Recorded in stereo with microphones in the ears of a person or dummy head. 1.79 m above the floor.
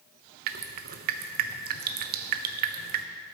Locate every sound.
0.5 s dripping: 55° right (ahead or behind), 0.7 m